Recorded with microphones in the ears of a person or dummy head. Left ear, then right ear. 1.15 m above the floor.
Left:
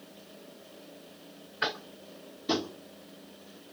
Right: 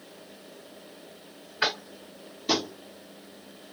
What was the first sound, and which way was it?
Tapping, 20° right (ahead or behind).